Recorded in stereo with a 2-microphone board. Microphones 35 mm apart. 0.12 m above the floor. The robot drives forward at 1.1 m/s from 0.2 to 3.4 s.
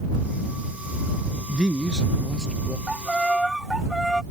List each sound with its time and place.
1.5 s a man speaking: 15° right (ahead or behind); by 2.8 s 10° right (ahead or behind)
2.9 s a violin: centre (ahead or behind)